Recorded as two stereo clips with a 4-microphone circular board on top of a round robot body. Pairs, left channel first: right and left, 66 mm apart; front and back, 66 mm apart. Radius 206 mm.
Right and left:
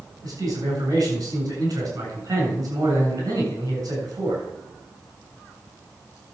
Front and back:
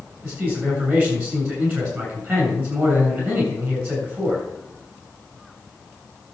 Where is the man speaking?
120° left, 7.5 m.